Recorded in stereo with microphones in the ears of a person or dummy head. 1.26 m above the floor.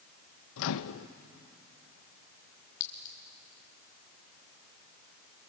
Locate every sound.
0.6 s a microwave: 70° left (ahead or behind), 0.7 m
2.8 s a clink: 60° left (ahead or behind), 2 m